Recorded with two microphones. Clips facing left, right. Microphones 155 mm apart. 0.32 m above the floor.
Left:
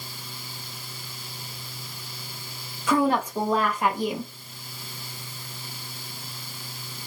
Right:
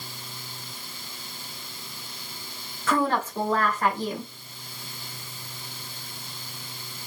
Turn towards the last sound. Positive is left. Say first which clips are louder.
# left 2 dB
turn(degrees=15)  # may be behind; listen again after turning